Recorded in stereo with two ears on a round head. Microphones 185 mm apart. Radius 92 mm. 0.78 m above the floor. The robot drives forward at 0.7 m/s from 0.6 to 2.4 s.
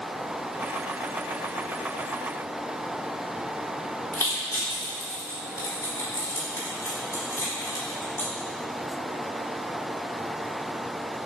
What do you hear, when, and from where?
4.1 s crushing: 15° left (ahead or behind), 2.5 m